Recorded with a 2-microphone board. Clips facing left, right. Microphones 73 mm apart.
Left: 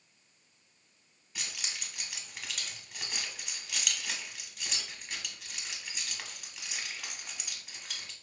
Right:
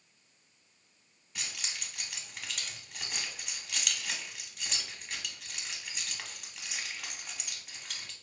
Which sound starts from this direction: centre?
Keys jangling, at 1.4 s.